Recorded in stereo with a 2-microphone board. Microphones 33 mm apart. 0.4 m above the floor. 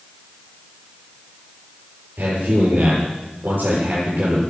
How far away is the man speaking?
About 10 m.